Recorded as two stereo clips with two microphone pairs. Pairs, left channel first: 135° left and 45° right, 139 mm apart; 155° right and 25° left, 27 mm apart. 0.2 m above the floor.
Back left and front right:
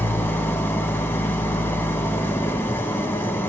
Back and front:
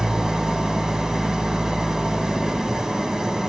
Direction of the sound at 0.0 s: 70° left.